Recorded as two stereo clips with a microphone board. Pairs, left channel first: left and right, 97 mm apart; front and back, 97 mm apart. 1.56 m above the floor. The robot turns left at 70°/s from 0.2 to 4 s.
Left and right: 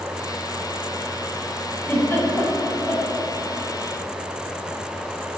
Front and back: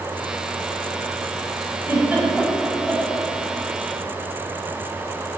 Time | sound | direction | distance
1.9 | a giggle | 140° left | 1.6 m